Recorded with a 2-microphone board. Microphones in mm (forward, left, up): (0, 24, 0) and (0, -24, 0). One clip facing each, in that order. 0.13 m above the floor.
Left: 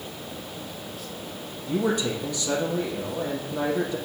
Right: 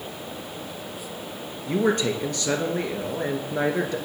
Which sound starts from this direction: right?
A man speaking, at 1.7 s.